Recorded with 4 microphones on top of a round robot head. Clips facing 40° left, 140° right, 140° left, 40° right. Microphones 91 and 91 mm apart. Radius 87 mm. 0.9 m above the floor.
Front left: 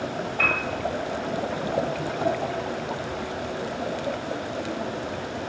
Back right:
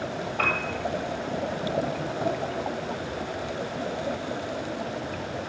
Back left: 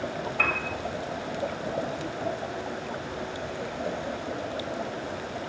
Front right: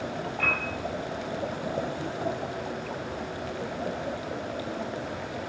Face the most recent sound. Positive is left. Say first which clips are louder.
# front left 1 dB, back left 1 dB
turn(degrees=170)